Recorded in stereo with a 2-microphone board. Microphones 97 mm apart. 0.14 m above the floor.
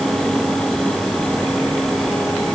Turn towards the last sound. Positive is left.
No sound to turn to.